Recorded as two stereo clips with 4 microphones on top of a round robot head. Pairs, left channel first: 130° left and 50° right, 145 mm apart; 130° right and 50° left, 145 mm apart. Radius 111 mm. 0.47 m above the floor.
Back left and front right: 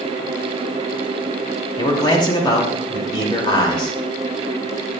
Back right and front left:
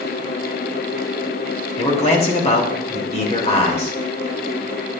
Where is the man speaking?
170° right, 2 m.